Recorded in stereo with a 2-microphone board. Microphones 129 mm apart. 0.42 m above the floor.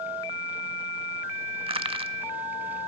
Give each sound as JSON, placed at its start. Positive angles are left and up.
{"t": 1.7, "sound": "crushing", "side_deg": -45, "distance_m": 0.5}